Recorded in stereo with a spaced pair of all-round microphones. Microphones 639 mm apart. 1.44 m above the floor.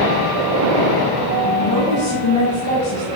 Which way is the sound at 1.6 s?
65° left (ahead or behind).